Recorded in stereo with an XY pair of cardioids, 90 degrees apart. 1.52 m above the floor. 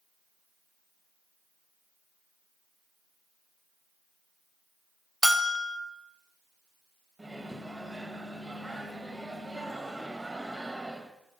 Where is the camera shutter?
No camera shutter in this recording.